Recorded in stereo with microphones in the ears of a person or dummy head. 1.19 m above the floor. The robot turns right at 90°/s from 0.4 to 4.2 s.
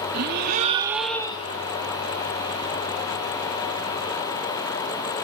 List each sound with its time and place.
0.1 s a gasp: 55° right, 2 m; by 1.6 s 50° left, 2 m